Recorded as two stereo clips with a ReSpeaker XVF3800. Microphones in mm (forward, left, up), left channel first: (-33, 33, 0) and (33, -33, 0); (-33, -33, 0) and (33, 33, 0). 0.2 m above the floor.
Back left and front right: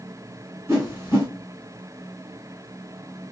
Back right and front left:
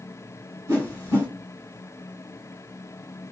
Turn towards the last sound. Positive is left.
turn(degrees=10)